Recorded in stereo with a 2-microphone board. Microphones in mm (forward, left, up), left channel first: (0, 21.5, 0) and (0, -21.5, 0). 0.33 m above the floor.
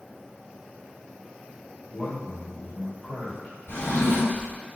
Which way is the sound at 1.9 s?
30° left (ahead or behind).